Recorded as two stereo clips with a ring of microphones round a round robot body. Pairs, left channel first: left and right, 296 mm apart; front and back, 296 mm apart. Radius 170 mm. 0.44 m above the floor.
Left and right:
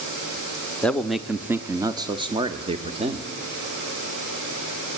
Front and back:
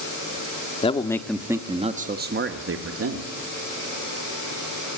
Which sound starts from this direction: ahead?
A man speaking, at 0.8 s.